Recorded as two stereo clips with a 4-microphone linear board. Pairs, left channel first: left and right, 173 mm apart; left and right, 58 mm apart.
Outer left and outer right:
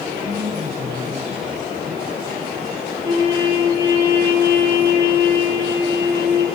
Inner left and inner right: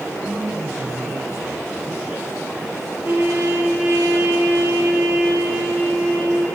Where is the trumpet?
20° right (ahead or behind), 10 m.